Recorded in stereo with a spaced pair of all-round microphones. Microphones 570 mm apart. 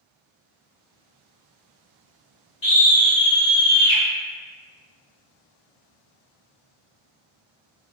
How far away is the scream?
About 1.2 m.